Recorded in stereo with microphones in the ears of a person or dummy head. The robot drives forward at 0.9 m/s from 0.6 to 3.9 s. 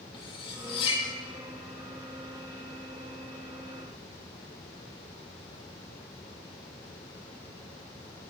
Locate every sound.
0.1 s cutlery clinking: 25° left (ahead or behind), 1.4 m; by 1.0 s 35° left (ahead or behind), 1.1 m